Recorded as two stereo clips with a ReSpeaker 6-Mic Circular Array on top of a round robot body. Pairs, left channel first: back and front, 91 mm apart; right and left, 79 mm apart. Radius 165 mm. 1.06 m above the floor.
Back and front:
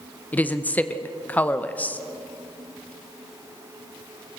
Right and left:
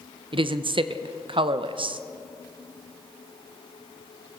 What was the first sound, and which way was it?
A woman speaking, 105° left.